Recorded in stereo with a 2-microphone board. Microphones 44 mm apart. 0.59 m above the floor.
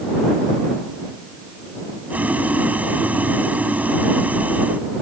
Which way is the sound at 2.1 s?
35° right (ahead or behind).